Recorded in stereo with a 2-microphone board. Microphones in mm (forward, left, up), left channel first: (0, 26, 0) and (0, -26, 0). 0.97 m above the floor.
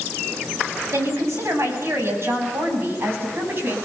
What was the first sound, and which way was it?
A woman speaking, 65° right (ahead or behind).